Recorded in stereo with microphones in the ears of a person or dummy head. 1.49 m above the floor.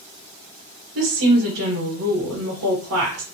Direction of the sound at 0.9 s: 85° right.